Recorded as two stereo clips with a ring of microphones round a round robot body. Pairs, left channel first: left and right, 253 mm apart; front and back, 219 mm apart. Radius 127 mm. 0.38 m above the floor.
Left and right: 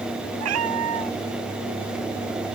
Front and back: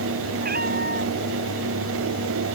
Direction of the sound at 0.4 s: 120° right.